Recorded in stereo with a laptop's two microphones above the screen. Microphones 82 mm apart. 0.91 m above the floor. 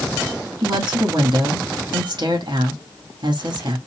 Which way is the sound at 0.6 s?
65° right (ahead or behind).